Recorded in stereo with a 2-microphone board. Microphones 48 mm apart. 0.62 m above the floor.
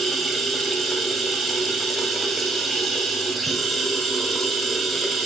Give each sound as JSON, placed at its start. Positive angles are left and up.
{"t": 0.0, "sound": "running water", "side_deg": 0, "distance_m": 1.8}